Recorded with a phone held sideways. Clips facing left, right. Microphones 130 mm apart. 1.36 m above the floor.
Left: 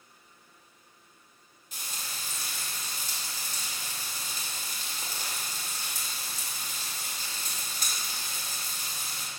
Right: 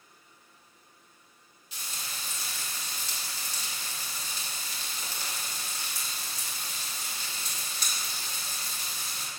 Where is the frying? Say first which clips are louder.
Even; 50° left (ahead or behind), 3 m.